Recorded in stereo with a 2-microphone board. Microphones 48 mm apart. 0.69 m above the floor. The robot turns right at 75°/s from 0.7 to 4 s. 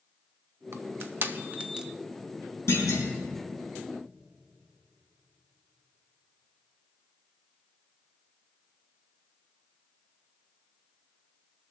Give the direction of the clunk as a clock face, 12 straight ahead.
10 o'clock.